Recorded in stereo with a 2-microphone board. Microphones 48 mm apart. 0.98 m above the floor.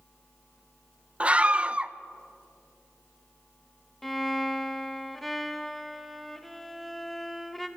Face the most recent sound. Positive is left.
turn(degrees=0)  # may be behind; listen again after turning